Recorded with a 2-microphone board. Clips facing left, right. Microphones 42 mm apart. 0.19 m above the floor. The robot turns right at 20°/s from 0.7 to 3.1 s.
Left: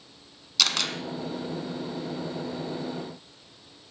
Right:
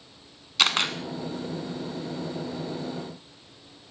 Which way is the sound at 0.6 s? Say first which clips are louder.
Right 3 dB; 30° right (ahead or behind).